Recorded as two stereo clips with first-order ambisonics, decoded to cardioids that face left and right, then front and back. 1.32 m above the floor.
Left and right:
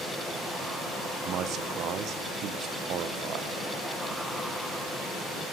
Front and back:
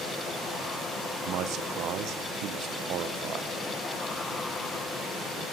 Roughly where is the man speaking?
Behind right.